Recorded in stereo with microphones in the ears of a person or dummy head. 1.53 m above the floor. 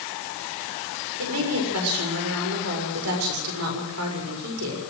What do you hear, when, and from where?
1.2 s a woman speaking: 85° right, 6.5 m